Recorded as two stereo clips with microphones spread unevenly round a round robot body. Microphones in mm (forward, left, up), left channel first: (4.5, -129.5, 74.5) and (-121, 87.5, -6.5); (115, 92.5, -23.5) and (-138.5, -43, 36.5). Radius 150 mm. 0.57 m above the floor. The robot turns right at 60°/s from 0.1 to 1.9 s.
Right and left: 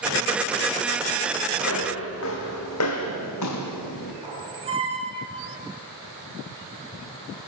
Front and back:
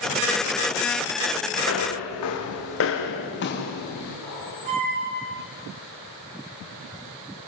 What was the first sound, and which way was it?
Footsteps, 25° right.